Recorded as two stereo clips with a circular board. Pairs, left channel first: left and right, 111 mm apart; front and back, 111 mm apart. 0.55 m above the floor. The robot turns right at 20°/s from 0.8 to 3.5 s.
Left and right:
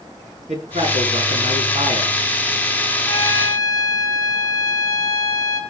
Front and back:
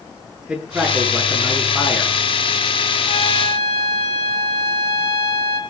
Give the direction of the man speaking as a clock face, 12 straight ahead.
3 o'clock.